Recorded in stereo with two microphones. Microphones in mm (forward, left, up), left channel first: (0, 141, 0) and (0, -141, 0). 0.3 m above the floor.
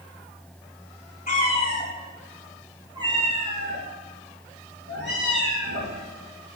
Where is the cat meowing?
30° left (ahead or behind), 1.1 m; by 5.9 s 45° right (ahead or behind), 2.5 m.